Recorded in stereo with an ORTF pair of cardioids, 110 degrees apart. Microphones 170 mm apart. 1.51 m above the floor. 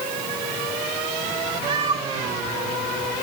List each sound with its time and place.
1.7 s a cat meowing: 35° right, 4.5 m